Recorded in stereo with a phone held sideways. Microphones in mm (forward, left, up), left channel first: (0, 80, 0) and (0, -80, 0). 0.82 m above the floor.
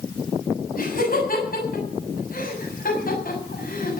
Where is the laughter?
65° left (ahead or behind), 7.5 m.